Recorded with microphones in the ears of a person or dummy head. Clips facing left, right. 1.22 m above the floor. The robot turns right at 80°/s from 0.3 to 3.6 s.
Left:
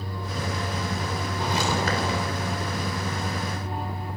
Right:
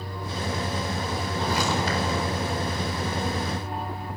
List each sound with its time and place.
1.4 s footsteps: 10° left, 7 m; by 2.2 s 75° left, 7 m